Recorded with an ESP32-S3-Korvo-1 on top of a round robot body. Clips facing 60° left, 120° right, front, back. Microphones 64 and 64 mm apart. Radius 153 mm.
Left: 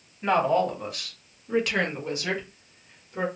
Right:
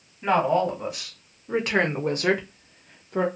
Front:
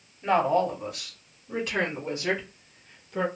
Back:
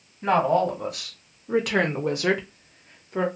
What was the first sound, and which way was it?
A woman speaking, 155° left.